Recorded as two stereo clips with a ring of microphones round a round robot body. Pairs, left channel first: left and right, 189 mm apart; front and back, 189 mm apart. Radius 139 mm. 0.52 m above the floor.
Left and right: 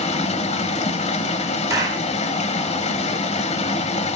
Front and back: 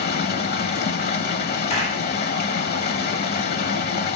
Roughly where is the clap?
Ahead right.